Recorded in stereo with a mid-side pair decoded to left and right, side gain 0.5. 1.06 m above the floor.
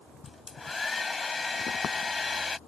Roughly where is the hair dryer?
Ahead left.